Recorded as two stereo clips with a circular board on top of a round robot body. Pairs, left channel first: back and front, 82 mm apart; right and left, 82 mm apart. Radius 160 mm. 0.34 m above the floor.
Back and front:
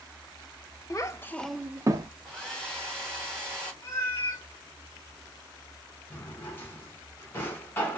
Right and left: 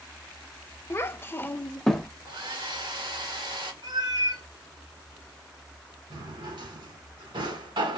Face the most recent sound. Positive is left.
turn(degrees=115)